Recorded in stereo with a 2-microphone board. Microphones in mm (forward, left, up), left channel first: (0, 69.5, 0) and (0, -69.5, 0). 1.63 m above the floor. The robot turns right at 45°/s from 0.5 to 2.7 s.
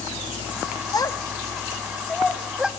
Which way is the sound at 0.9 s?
30° left (ahead or behind).